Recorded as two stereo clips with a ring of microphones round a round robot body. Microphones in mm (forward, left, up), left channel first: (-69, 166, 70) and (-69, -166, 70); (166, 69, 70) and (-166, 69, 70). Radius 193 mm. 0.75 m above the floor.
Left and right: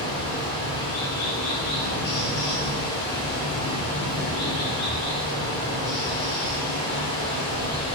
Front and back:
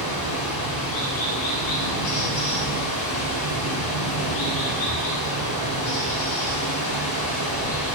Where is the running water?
10° left, 3.5 m.